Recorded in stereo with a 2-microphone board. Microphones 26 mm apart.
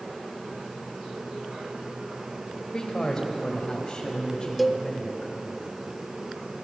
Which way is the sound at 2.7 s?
25° left (ahead or behind).